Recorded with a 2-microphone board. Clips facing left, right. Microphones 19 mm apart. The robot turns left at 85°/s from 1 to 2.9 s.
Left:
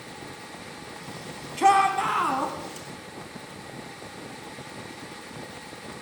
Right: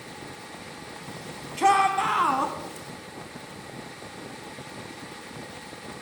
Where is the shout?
10° left, 1.7 m; by 2.5 s 70° right, 1.7 m.